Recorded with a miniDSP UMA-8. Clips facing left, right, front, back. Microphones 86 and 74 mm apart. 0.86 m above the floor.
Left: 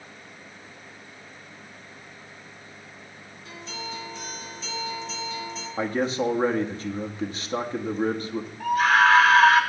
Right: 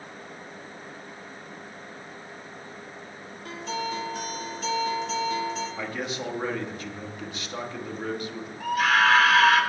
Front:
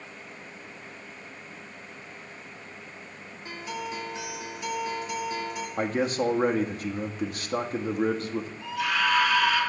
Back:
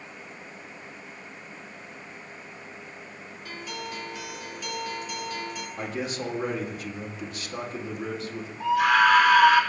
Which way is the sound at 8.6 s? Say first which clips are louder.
Left 3 dB, back 9 dB; straight behind.